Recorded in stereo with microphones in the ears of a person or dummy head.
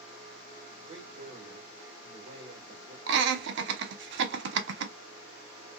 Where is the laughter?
65° right (ahead or behind), 0.9 m.